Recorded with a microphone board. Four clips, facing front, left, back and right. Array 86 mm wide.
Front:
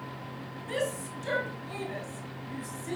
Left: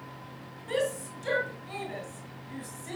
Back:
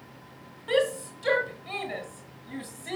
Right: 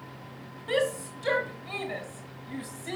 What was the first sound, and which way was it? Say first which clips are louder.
A shout: right 2 dB, back 7 dB; 155° right.